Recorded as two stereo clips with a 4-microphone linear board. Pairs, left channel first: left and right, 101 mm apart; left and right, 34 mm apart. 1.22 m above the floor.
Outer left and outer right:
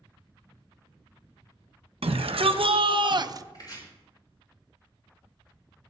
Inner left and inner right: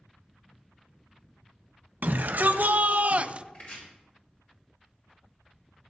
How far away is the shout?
About 1.2 m.